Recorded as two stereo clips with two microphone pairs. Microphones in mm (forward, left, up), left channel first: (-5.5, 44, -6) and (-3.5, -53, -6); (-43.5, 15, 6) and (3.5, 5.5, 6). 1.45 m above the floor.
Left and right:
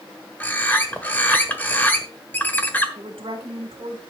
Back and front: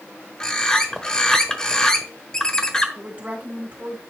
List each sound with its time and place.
0.4 s a bird: 125° left, 1.2 m
3.0 s a woman speaking: 65° right, 2.5 m